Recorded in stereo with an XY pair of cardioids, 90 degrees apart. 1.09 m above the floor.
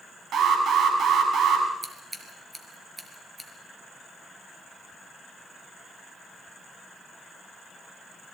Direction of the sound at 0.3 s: 65° right.